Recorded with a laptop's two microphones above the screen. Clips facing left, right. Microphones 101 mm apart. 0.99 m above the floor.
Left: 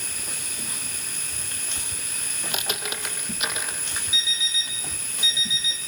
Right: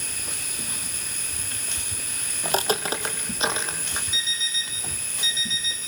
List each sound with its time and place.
2.5 s footsteps: 40° right (ahead or behind), 2 m; by 4.0 s 25° right (ahead or behind), 3 m
4.1 s an alarm clock: 15° left (ahead or behind), 8 m